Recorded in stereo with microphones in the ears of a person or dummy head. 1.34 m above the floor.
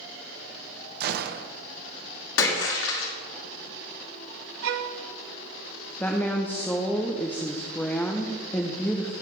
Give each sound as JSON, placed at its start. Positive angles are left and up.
{"t": 1.0, "sound": "a gunshot", "side_deg": -60, "distance_m": 0.7}
{"t": 2.4, "sound": "a splash", "side_deg": 70, "distance_m": 2.0}
{"t": 4.6, "sound": "a violin", "side_deg": -65, "distance_m": 0.7}
{"t": 6.0, "sound": "a woman speaking", "side_deg": 10, "distance_m": 0.7}